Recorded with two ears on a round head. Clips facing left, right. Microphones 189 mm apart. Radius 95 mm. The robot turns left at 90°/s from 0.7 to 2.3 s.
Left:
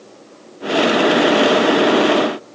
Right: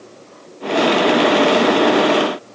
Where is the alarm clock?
No alarm clock in this recording.